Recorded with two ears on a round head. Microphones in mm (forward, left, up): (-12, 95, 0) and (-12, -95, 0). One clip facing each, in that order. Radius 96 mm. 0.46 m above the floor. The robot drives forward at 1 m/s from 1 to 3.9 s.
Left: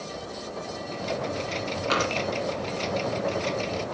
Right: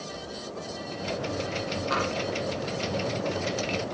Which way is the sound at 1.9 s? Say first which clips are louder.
Left 3 dB; 75° left (ahead or behind).